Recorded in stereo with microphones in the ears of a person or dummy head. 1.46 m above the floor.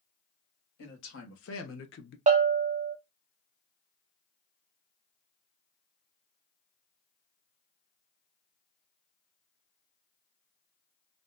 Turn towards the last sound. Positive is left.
turn(degrees=-35)  # may be behind; listen again after turning